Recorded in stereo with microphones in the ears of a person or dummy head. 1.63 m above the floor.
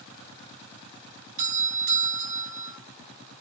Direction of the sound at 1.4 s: 45° right (ahead or behind).